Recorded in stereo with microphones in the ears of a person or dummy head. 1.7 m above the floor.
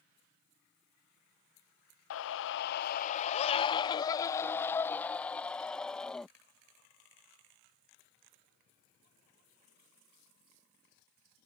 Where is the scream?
80° left; by 6.3 s 5° left (ahead or behind).